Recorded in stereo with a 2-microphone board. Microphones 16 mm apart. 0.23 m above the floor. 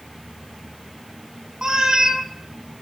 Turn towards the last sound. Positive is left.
turn(degrees=-55)  # may be behind; listen again after turning